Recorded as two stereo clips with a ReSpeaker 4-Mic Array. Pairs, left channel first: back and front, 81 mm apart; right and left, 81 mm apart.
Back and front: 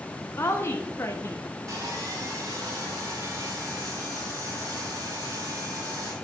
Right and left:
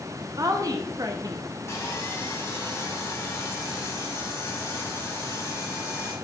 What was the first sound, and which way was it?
A woman speaking, 125° left.